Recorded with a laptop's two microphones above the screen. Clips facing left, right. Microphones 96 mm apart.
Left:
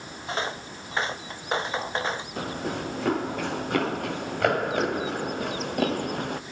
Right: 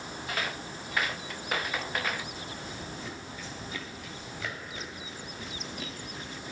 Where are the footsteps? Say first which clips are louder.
Left 5 dB; 30° left (ahead or behind).